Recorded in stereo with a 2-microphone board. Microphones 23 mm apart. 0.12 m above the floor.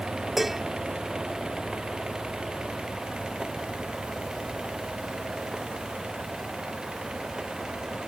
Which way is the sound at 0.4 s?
10° right (ahead or behind).